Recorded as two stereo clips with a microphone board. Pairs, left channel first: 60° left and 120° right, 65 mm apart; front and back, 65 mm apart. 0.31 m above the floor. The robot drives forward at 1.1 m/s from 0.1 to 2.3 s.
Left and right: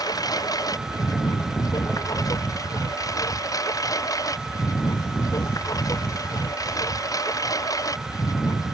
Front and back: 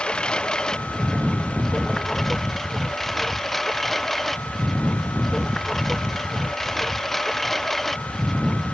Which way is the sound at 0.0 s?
75° left.